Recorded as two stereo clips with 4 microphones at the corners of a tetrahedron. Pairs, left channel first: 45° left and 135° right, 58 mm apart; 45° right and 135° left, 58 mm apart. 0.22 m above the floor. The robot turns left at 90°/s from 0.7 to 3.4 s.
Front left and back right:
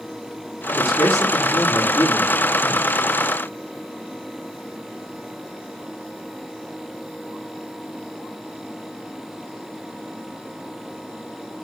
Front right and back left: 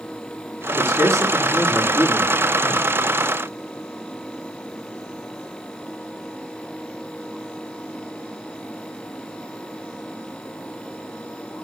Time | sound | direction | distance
0.7 | a man speaking | 160° left | 3 m